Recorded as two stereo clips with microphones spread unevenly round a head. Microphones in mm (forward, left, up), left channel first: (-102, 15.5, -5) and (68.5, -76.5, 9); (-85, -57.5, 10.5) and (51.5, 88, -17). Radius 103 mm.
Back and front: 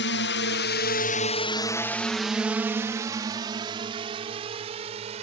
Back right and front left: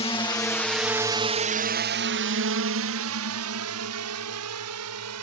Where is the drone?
165° left; by 5.2 s 35° left.